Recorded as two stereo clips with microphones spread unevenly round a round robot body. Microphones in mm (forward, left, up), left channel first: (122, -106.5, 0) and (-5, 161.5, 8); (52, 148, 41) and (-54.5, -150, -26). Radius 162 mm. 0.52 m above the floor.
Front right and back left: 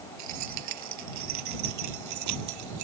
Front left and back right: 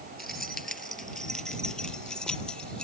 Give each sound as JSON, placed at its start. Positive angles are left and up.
{"t": 0.2, "sound": "keys jangling", "azimuth_deg": 160}